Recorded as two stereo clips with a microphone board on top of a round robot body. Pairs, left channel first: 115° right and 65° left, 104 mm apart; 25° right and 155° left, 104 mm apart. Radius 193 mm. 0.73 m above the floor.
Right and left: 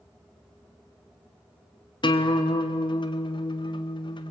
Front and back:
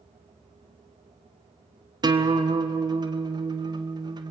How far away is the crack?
I don't hear a crack.